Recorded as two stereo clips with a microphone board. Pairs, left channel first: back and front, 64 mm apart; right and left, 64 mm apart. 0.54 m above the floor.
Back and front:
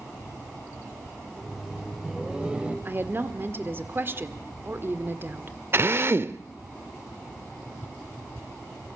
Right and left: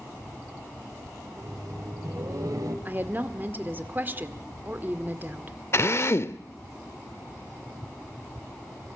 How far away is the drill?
About 0.7 m.